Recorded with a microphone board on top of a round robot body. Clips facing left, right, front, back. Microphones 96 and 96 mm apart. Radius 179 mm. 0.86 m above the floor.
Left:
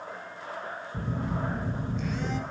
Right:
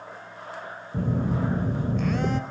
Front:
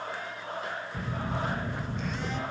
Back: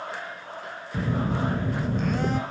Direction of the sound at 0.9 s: 130° right.